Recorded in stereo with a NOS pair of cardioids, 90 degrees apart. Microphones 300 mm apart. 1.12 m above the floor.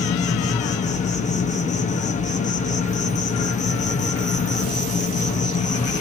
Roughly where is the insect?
Ahead left.